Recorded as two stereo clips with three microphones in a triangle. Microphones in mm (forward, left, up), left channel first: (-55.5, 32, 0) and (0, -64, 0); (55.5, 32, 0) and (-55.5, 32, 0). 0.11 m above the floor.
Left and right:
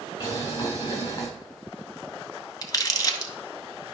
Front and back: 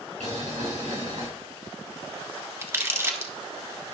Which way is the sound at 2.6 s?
135° left.